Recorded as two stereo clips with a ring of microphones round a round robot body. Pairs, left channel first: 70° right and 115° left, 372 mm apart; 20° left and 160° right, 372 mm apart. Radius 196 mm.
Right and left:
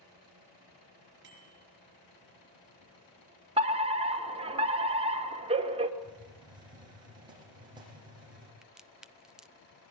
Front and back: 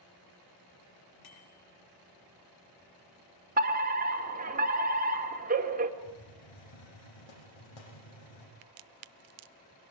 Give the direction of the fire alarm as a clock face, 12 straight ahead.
6 o'clock.